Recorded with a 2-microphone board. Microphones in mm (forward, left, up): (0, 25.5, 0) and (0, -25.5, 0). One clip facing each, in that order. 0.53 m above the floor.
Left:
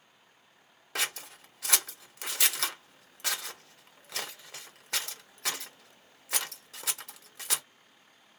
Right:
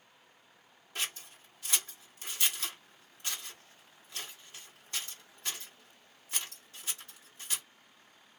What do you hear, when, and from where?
0.9 s scissors: 75° left (ahead or behind), 0.5 m